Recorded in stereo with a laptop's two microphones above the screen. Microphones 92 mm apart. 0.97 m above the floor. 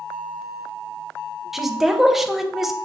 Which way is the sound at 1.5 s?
5° right (ahead or behind).